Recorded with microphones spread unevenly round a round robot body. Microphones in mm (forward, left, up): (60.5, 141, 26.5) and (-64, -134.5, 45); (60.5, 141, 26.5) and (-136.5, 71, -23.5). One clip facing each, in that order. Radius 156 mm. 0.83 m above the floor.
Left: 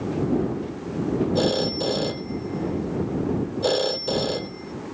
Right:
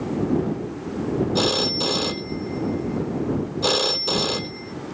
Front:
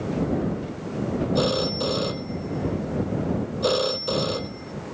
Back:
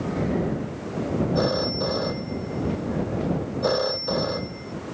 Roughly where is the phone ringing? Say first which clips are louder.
Left 1 dB, even; ahead right.